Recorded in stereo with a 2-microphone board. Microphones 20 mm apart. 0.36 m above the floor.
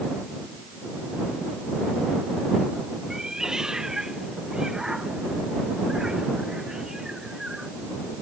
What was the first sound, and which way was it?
A cat meowing, 30° right (ahead or behind).